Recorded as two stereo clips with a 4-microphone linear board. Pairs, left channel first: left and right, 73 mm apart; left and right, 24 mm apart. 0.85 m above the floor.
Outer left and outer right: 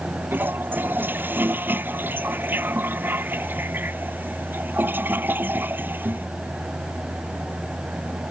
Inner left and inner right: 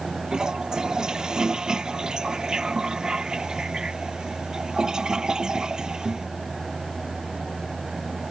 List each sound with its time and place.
0.3 s a toilet flushing: 30° right (ahead or behind)